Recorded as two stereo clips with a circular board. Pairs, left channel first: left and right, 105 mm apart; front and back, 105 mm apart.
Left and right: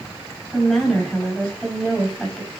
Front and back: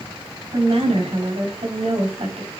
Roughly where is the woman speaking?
Behind.